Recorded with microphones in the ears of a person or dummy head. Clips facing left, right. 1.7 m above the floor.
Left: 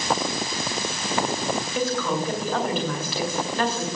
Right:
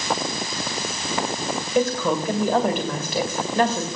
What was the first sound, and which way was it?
A woman speaking, 50° right (ahead or behind).